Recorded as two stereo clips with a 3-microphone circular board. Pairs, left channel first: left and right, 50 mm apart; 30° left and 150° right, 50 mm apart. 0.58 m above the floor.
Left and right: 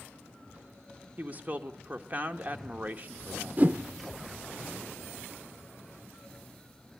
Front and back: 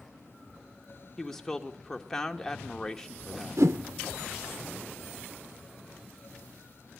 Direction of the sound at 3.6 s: 145° right.